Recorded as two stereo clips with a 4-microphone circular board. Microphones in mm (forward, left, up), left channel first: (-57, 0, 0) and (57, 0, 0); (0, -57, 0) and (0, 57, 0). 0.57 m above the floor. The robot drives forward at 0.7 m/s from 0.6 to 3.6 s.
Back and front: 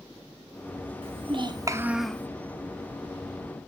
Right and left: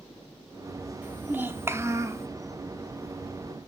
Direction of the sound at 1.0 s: 15° left.